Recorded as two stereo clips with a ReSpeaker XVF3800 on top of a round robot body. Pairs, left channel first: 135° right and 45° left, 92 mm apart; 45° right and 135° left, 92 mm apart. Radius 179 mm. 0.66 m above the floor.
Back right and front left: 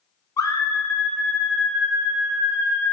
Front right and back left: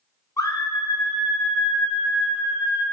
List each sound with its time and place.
0.4 s a scream: 95° right, 1.5 m; by 2.8 s 35° right, 2.5 m